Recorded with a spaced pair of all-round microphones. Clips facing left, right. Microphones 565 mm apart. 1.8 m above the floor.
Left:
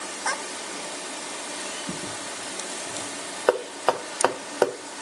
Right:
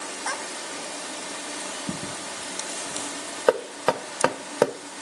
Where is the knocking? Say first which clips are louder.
Right 1 dB; 50° right (ahead or behind), 0.5 m.